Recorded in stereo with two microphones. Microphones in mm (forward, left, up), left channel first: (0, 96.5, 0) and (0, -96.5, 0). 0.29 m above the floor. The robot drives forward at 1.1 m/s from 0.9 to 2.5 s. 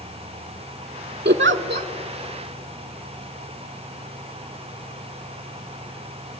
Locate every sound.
1.2 s a giggle: 60° right (ahead or behind), 0.5 m; by 1.9 s 45° right (ahead or behind), 0.6 m